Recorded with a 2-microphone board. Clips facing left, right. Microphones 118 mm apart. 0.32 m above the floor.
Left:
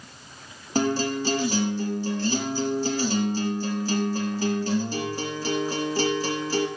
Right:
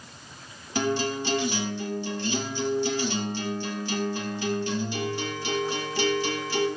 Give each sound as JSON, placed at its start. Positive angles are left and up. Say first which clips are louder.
{"t": 0.8, "sound": "a guitar", "louder": "left 3 dB", "side_deg": 40, "distance_m": 4.5}